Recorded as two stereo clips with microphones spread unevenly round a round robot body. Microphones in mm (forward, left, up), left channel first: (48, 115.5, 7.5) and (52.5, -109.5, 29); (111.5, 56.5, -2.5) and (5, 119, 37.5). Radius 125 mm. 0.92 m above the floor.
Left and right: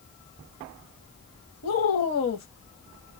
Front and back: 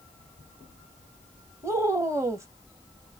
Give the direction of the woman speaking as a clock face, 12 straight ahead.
9 o'clock.